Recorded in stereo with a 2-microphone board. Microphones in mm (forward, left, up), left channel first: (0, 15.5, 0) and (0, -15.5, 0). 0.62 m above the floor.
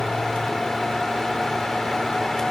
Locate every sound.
Only background noise.